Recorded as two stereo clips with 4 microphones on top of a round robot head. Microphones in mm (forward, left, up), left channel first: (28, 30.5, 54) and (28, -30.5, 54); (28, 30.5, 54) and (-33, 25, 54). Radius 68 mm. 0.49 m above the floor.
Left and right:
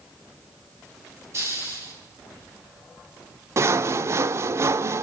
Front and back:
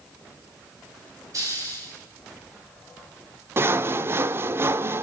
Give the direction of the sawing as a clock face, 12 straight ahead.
4 o'clock.